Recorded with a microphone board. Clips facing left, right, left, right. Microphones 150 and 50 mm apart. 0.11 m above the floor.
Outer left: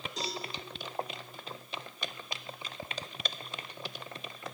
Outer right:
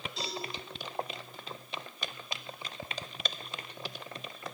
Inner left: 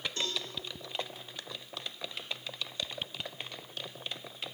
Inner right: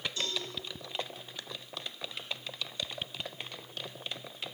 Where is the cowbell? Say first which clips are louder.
Outer left 2 dB, inner left 1 dB; 40° left (ahead or behind), 5.5 m.